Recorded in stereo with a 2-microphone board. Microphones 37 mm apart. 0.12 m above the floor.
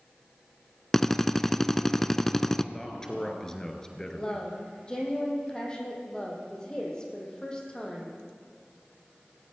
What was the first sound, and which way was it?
A drill, 15° left (ahead or behind).